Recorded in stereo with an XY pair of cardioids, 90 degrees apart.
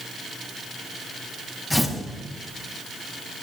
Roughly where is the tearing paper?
Ahead.